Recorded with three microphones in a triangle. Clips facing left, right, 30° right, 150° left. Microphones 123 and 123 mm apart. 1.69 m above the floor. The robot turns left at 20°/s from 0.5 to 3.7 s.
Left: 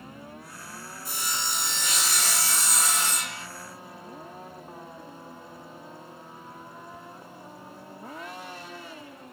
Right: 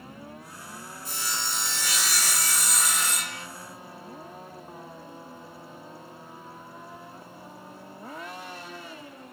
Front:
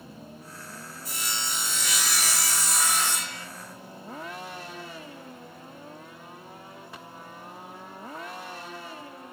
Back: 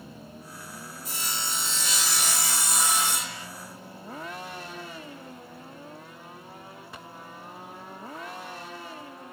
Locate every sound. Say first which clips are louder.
1.1 s sawing: left 1 dB, even; 145° left, 1.0 m; by 3.5 s 95° left, 1.0 m